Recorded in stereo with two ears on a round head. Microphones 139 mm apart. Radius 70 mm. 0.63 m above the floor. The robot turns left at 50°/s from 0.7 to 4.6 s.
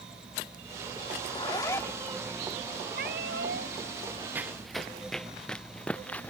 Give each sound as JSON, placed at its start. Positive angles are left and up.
{"t": 1.2, "sound": "a zipper", "azimuth_deg": 50}
{"t": 2.9, "sound": "a cat meowing", "azimuth_deg": -65}
{"t": 4.3, "sound": "running footsteps", "side_deg": -15}